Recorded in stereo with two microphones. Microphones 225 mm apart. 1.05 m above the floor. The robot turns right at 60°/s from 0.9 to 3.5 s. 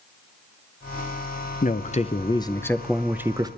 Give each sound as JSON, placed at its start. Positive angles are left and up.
{"t": 1.6, "sound": "a man speaking", "azimuth_deg": 100, "distance_m": 0.5}